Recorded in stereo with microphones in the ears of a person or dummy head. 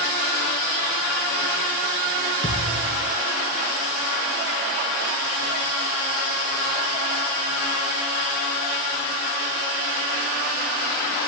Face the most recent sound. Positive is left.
turn(degrees=5)  # may be behind; listen again after turning